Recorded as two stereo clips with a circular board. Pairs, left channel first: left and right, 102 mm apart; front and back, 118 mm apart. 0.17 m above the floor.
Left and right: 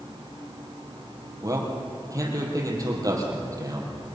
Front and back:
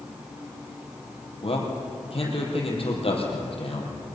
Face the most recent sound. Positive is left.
turn(degrees=-35)